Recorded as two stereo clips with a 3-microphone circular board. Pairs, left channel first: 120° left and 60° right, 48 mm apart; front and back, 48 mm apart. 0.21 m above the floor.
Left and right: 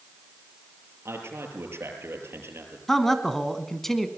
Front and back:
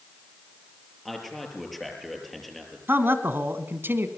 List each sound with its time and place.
1.1 s a man speaking: 90° right, 6 m
2.9 s a man speaking: 160° right, 1.6 m